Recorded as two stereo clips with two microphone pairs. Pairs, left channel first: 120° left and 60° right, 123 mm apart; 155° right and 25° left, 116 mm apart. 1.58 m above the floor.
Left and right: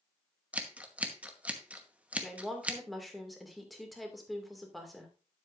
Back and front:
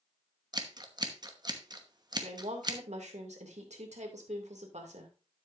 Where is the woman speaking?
30° left, 2 m.